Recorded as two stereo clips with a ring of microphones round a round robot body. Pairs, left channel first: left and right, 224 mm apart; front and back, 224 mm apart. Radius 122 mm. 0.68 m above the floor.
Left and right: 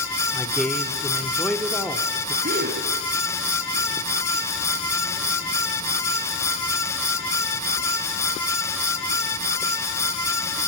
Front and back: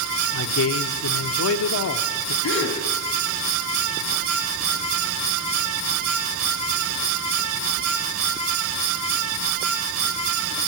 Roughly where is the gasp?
Ahead right.